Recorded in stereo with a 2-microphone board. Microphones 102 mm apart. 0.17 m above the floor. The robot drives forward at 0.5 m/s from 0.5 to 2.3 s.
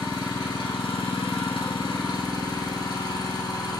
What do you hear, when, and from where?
0.0 s an engine running: 55° left (ahead or behind), 0.7 m; by 3.8 s 45° left (ahead or behind), 0.8 m